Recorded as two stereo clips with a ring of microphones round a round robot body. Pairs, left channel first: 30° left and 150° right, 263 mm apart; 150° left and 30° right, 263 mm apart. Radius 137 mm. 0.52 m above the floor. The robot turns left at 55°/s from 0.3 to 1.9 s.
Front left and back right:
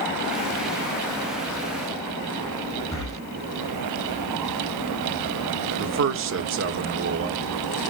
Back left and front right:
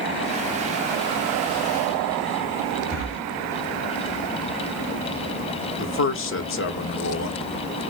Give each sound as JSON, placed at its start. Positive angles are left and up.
{"t": 2.9, "sound": "breathing", "azimuth_deg": 110, "distance_m": 4.0}
{"t": 5.8, "sound": "a man speaking", "azimuth_deg": 180, "distance_m": 1.1}